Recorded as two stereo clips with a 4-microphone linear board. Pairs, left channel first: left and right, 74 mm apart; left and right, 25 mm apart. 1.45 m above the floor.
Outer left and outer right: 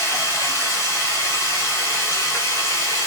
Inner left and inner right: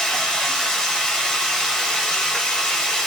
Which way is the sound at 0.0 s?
40° left (ahead or behind).